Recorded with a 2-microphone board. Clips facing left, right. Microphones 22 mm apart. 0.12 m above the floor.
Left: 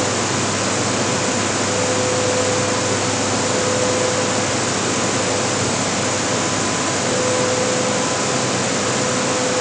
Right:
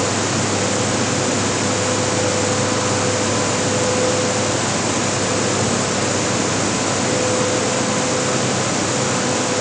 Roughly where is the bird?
No bird in this recording.